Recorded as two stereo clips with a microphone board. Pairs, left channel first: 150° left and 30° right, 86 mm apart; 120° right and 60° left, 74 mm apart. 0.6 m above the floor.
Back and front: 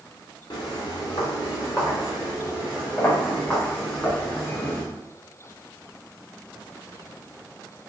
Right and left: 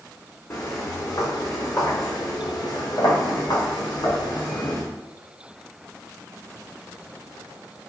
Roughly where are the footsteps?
Behind.